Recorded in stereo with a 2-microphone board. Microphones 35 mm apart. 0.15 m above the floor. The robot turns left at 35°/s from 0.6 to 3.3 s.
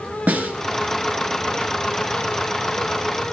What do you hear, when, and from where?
0.3 s a snare drum: 50° right (ahead or behind), 1.5 m